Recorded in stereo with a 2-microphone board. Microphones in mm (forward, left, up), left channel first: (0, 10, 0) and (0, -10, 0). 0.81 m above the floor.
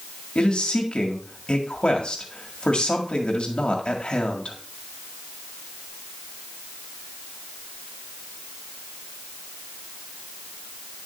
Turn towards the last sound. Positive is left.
turn(degrees=60)  # may be behind; listen again after turning